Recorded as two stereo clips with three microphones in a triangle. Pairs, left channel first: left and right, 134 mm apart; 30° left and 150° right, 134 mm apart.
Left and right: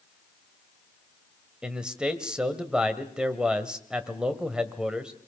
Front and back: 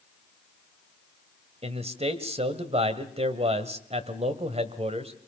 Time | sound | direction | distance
1.6 | a man speaking | 170° right | 1.6 m